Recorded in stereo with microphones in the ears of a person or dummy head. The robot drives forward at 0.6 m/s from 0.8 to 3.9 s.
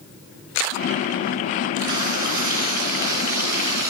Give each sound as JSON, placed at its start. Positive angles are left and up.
{"t": 1.9, "sound": "frying", "side_deg": -20, "distance_m": 8.0}